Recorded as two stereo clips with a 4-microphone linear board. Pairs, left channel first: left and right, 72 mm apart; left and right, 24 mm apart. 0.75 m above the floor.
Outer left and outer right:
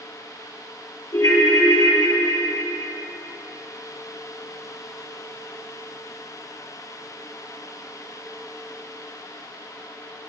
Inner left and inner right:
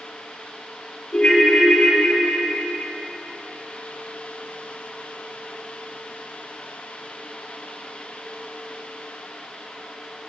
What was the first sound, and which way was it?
A ringtone, 65° left (ahead or behind).